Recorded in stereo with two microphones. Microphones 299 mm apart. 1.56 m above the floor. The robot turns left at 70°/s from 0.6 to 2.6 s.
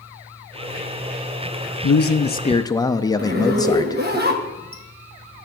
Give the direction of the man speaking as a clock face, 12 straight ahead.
10 o'clock.